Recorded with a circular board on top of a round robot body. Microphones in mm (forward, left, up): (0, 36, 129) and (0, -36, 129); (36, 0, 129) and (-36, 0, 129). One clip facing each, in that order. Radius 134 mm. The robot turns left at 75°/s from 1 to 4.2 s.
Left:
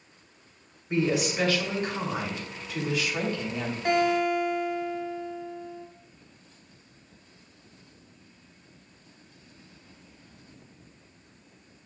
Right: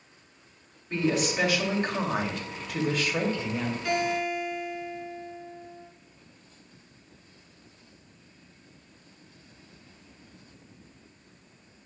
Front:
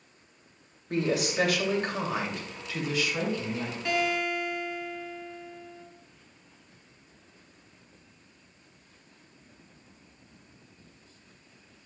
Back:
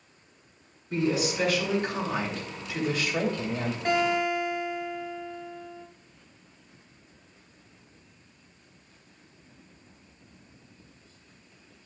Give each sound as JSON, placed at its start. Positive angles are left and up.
{"t": 0.9, "sound": "a woman speaking", "azimuth_deg": 15, "distance_m": 2.5}
{"t": 3.9, "sound": "a guitar", "azimuth_deg": 140, "distance_m": 2.5}